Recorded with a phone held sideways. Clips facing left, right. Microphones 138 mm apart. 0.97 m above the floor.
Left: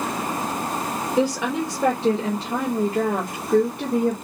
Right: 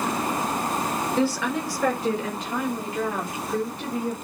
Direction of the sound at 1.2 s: 15° left (ahead or behind).